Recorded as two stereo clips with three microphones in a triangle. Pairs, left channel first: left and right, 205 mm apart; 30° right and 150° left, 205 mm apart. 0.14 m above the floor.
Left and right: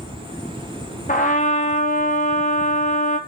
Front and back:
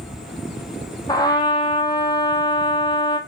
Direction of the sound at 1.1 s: 35° left.